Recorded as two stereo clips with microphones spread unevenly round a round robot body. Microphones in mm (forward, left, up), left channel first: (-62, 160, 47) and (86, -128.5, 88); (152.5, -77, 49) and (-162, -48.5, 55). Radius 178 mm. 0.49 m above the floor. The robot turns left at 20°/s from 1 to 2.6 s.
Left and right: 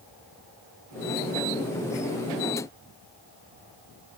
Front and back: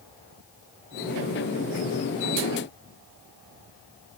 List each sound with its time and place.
Only background noise.